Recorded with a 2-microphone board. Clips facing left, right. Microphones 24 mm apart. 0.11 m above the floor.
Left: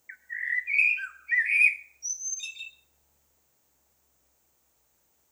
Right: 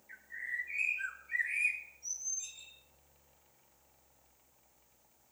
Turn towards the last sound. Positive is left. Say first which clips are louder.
# left 10 dB
turn(degrees=60)  # may be behind; listen again after turning